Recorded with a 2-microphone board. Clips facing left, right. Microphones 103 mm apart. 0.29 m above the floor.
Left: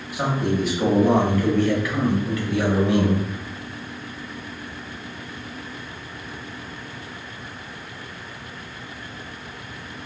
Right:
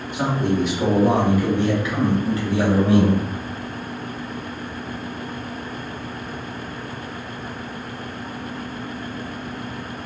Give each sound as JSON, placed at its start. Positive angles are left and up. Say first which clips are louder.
{"t": 0.1, "sound": "a man speaking", "louder": "right 2 dB", "side_deg": 10, "distance_m": 1.4}